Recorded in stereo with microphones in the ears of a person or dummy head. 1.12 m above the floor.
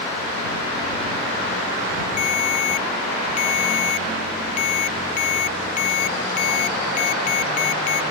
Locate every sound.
2.2 s a ringtone: 45° left (ahead or behind)